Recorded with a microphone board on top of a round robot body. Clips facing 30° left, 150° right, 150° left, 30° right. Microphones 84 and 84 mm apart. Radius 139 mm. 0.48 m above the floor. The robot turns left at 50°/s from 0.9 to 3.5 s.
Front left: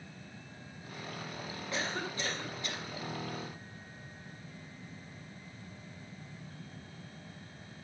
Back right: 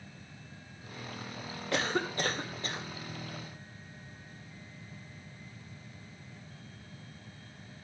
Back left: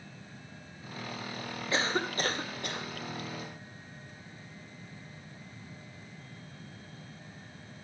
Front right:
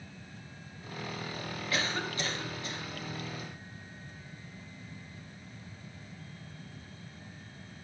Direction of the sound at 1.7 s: 150° right.